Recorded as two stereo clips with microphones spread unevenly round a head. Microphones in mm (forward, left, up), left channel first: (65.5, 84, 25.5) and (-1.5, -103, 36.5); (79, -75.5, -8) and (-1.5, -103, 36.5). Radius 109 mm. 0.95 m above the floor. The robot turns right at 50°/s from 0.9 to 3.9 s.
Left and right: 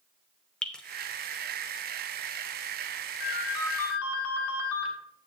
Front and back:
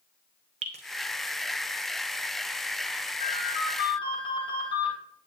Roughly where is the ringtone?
Ahead left.